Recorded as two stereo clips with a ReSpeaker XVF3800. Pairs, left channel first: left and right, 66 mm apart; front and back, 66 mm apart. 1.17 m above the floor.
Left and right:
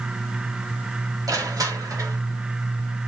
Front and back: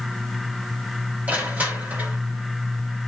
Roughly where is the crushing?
Behind right.